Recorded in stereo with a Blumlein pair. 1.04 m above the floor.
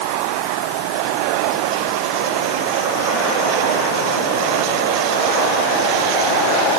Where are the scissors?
I don't hear scissors.